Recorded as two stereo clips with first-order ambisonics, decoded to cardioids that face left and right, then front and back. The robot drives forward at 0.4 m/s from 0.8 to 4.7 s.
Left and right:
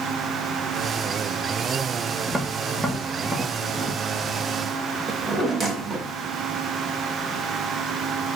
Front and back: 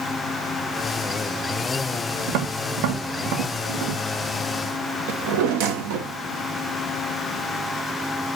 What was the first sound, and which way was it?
Tapping, 170° right.